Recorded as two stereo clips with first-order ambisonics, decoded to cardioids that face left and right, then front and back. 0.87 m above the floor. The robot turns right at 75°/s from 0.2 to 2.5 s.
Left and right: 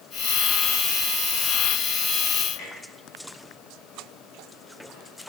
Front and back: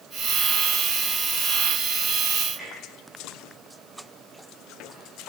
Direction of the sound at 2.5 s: 85° left.